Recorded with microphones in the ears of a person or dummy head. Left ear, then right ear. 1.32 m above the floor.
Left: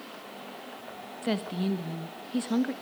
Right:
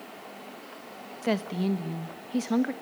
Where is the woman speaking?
20° right (ahead or behind), 1.3 m.